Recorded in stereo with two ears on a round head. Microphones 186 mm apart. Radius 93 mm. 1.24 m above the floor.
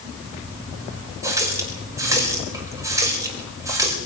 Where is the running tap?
15° right (ahead or behind), 4.5 m.